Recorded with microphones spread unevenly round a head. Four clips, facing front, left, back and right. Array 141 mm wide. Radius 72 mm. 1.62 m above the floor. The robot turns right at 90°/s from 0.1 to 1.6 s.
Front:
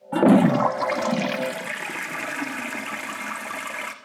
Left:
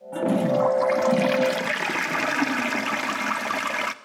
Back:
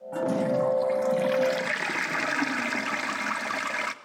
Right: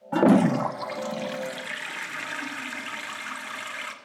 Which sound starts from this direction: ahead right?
A toilet flushing, at 0.1 s.